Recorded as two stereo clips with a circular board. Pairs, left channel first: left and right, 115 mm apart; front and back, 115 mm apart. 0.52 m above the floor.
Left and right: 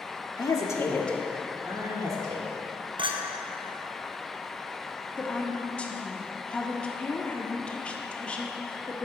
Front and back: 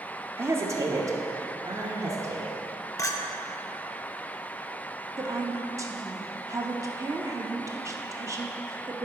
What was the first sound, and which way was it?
A woman speaking, 120° left.